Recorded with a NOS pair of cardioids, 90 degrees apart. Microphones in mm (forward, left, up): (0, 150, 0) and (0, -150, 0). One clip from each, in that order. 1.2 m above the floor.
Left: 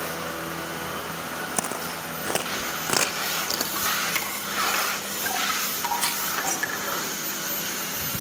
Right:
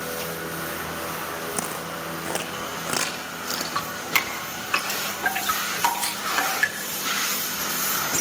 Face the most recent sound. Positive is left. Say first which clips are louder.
# left 1 dB
turn(degrees=20)